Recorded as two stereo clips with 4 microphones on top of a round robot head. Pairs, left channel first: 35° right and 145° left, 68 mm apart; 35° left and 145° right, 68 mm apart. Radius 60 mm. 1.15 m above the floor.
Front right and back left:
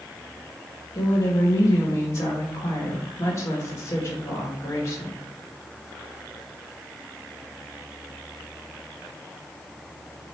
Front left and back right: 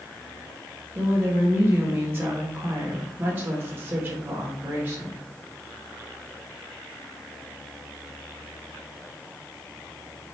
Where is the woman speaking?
90° right, 1.3 m.